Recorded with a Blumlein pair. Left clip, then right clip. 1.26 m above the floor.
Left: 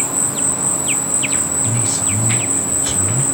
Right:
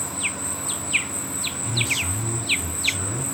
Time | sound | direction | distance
0.0 | an insect | 55° left | 1.1 m
1.6 | a man speaking | 50° left | 7 m